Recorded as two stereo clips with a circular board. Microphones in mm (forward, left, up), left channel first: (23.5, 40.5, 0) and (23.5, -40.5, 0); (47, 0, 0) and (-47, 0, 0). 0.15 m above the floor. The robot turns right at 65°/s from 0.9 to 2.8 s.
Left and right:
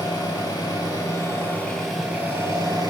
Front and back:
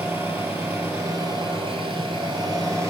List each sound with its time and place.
0.0 s an engine running: 115° left, 0.8 m; by 2.9 s 120° right, 0.8 m